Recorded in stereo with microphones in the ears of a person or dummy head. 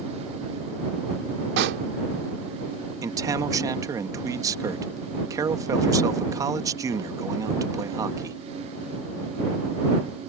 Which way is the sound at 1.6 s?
60° right (ahead or behind).